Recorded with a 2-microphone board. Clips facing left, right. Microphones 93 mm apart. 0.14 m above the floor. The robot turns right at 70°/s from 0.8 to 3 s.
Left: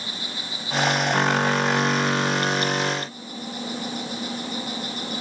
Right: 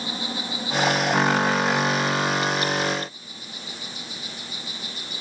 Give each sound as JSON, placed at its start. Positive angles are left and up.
{"t": 0.0, "sound": "an insect", "azimuth_deg": -25, "distance_m": 4.5}